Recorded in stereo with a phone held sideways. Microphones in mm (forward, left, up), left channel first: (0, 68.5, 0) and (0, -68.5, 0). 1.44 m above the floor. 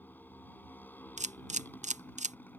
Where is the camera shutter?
60° right (ahead or behind).